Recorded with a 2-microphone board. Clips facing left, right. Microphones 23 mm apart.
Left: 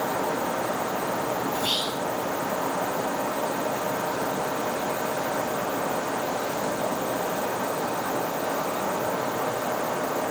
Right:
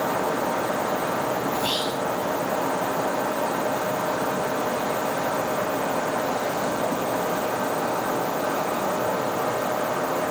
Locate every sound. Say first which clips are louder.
1.5 s whispering: right 1 dB; 30° left (ahead or behind), 5.5 m